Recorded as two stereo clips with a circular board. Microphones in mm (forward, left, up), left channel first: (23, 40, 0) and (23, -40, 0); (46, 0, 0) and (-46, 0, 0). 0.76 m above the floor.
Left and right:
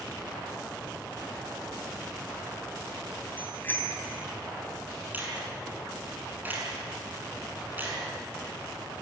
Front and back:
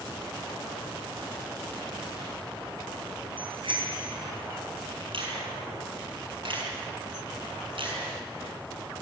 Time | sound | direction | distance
3.4 | a bicycle bell | 155° left | 4 m
5.1 | a finger snap | 155° right | 6.5 m